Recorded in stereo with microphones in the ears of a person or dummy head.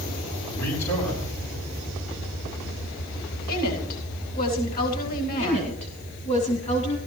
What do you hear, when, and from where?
0.5 s a man speaking: 40° left (ahead or behind), 4 m
3.5 s a woman speaking: 50° left (ahead or behind), 9.5 m
5.4 s a woman speaking: 35° left (ahead or behind), 2.5 m